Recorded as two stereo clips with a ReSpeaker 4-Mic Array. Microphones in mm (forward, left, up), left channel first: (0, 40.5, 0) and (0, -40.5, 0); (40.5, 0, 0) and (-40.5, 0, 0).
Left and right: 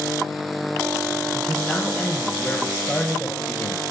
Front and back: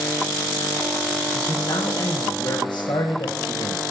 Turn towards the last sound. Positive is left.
turn(degrees=10)